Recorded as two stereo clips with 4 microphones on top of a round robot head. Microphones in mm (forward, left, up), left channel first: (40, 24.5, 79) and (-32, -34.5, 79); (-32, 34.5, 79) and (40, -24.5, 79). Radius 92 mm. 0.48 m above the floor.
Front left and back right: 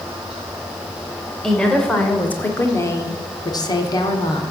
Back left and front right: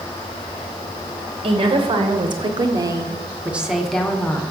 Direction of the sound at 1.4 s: 45° right.